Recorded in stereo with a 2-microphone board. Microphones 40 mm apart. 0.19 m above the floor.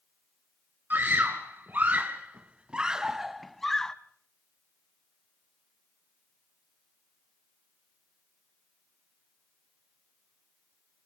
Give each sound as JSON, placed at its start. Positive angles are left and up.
{"t": 0.9, "sound": "a scream", "side_deg": -55, "distance_m": 2.5}